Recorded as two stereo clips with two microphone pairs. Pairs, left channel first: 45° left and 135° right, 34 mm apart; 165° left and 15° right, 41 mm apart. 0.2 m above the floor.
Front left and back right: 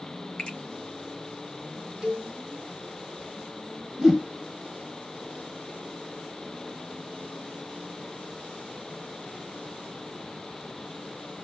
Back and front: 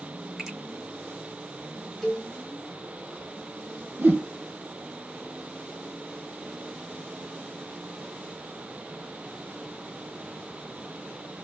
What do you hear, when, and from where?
0.4 s a finger snap: 85° left, 1.6 m
2.0 s a cowbell: 145° right, 1.1 m
4.0 s a whoosh: 50° right, 1.2 m